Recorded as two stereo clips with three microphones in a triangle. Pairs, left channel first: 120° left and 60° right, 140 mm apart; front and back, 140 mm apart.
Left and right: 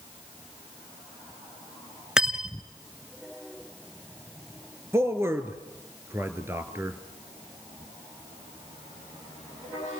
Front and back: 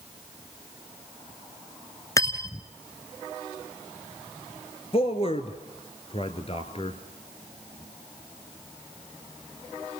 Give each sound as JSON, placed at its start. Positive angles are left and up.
{"t": 2.2, "sound": "cutlery clinking", "azimuth_deg": 20, "distance_m": 0.9}
{"t": 4.9, "sound": "a man speaking", "azimuth_deg": 5, "distance_m": 1.5}